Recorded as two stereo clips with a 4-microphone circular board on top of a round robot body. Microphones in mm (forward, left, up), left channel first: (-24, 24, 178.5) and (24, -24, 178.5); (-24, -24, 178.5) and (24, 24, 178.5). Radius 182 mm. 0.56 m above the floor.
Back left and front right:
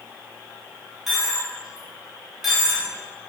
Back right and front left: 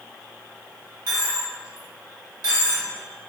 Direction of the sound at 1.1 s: 40° left.